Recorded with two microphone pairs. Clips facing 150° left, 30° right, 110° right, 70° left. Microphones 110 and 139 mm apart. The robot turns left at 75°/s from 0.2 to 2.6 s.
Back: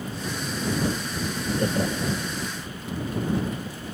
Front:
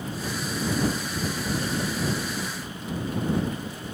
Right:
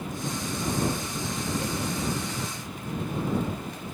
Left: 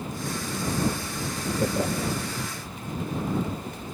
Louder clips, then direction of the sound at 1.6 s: Back 3 dB, left 4 dB; 120° left.